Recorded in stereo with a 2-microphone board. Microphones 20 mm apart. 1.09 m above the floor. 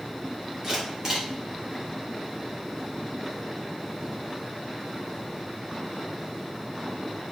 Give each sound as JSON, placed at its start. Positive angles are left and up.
{"t": 0.6, "sound": "a camera shutter", "side_deg": -30, "distance_m": 2.5}